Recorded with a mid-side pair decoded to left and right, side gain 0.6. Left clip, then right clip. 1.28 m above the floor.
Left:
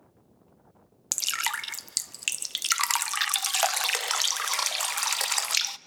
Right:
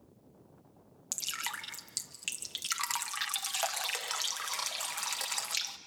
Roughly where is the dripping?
Ahead left.